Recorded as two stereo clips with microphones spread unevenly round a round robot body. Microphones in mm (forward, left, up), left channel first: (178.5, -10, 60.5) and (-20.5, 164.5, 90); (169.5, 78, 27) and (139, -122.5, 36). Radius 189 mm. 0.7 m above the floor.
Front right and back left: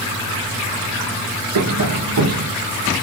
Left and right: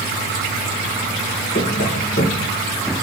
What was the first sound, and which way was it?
Tapping, 145° left.